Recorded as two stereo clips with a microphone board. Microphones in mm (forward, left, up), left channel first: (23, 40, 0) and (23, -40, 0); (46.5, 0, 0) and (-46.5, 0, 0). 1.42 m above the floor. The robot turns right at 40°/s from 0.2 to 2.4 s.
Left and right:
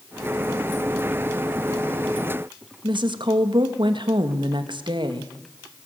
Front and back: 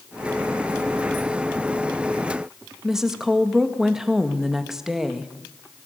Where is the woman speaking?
95° right, 1.9 m.